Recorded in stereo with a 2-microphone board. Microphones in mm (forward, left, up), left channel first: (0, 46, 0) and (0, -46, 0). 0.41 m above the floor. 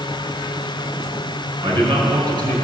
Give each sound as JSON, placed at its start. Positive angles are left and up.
{"t": 1.6, "sound": "a man speaking", "side_deg": -50, "distance_m": 5.5}